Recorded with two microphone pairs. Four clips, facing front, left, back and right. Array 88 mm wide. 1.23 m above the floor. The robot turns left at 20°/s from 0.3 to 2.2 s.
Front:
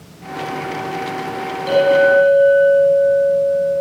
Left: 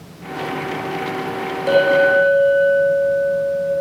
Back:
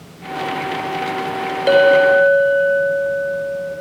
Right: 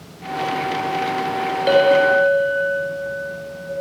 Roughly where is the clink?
Behind.